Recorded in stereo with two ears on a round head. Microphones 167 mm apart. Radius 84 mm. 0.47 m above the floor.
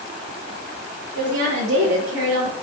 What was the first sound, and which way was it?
A woman speaking, 75° right (ahead or behind).